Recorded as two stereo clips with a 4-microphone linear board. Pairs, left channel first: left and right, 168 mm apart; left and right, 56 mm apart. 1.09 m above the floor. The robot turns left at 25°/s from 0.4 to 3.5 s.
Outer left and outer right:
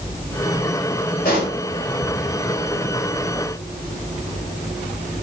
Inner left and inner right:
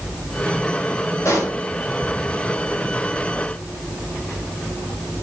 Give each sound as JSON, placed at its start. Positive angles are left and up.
{"t": 1.2, "sound": "a pop", "side_deg": 70, "distance_m": 2.0}